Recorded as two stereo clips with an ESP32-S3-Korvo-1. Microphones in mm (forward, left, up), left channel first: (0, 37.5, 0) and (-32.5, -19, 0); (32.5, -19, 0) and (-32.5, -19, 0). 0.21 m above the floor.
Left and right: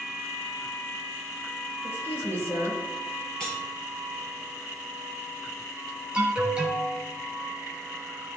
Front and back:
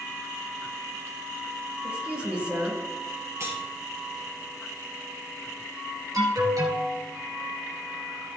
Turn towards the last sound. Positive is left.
turn(degrees=165)